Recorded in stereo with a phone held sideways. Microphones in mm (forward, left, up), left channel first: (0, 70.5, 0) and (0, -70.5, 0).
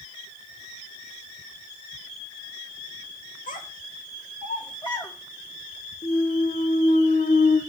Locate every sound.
3.5 s a child speaking: 75° left (ahead or behind), 1.6 m; by 5.1 s 25° left (ahead or behind), 1.4 m
6.0 s a clunk: 70° left (ahead or behind), 0.9 m